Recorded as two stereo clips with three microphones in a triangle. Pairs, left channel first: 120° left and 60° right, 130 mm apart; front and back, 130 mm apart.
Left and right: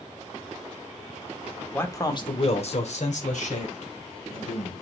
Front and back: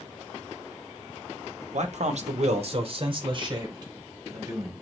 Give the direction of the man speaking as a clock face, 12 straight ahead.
6 o'clock.